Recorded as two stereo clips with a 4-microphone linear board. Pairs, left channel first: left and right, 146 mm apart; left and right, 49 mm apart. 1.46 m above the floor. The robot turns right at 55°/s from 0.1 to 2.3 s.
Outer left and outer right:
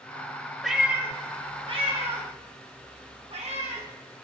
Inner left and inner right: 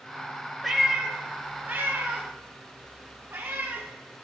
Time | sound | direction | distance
0.6 | a cat meowing | centre (ahead or behind) | 1.0 m